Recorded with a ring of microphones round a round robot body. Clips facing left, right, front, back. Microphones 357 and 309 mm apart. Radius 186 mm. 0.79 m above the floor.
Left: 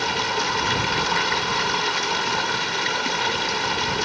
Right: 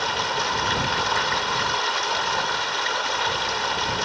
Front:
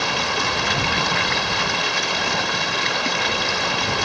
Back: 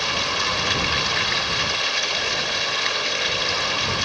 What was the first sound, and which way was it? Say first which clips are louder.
Running water: left 2 dB, front 4 dB; 30° left.